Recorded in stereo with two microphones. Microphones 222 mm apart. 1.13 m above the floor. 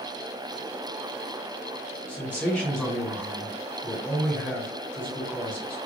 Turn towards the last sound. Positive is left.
turn(degrees=5)  # may be behind; listen again after turning